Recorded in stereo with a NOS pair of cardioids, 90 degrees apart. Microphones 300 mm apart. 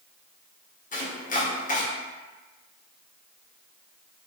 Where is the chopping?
25° left, 0.7 m.